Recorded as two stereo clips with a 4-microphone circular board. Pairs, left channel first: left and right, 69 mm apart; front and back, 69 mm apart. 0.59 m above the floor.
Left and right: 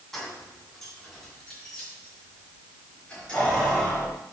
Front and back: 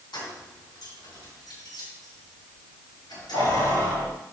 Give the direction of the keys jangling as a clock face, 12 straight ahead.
12 o'clock.